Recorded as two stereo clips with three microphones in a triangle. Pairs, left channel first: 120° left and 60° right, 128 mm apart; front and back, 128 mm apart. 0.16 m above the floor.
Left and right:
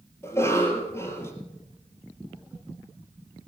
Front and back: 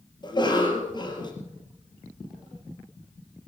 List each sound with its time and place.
0.2 s a cough: 50° left, 3.5 m